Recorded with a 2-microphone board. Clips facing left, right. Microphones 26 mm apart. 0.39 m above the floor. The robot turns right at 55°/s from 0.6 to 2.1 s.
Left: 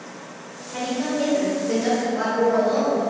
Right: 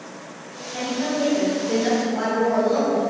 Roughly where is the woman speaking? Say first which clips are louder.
Even; centre.